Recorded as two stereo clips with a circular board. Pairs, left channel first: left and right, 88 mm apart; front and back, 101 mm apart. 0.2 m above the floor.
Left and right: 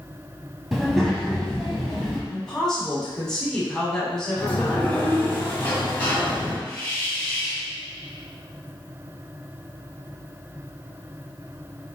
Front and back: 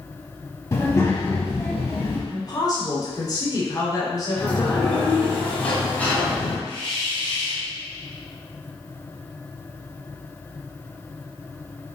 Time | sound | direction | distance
0.7 | a child speaking | straight ahead | 0.6 m
2.3 | a woman speaking | 10° left | 1.4 m
4.4 | a sliding door | 60° left | 1.2 m
6.7 | a hiss | 20° left | 1.9 m